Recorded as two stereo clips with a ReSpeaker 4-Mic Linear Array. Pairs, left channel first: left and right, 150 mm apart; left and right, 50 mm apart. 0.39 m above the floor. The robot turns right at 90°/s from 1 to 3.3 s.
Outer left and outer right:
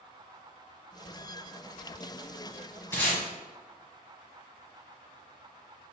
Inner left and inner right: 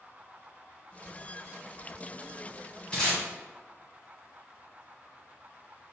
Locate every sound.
2.9 s tape being pulled: 15° left (ahead or behind), 1.5 m; by 3.2 s 10° right (ahead or behind), 1.5 m